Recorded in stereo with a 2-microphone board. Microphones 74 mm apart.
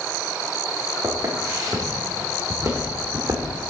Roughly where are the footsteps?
Right.